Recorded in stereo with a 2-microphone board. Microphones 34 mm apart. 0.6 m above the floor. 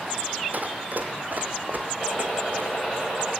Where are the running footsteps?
55° right (ahead or behind), 1.2 m; by 3.0 s 65° right (ahead or behind), 2.5 m.